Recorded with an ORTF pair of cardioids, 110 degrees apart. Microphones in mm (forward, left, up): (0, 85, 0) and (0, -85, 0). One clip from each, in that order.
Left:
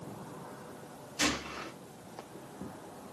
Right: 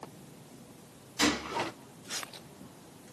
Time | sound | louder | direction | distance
1.2 | a gunshot | right 3 dB | 25° right | 1.3 m